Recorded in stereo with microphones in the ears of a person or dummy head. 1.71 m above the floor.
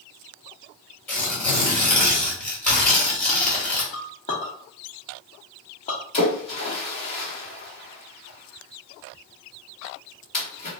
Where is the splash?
35° left (ahead or behind), 2.0 m.